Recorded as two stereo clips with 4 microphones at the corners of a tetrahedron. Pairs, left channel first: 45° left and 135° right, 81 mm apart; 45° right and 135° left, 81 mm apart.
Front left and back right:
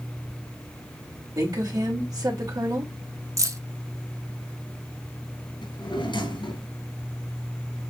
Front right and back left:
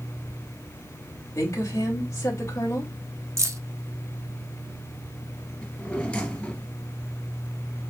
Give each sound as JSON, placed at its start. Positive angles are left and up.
{"t": 1.4, "sound": "a woman speaking", "azimuth_deg": -95, "distance_m": 3.0}
{"t": 3.4, "sound": "keys jangling", "azimuth_deg": 180, "distance_m": 1.1}
{"t": 5.6, "sound": "a drawer", "azimuth_deg": 30, "distance_m": 2.5}